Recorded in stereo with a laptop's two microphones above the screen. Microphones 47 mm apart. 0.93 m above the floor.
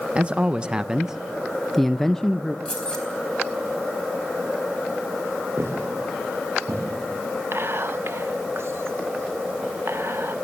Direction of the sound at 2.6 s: 20° left (ahead or behind).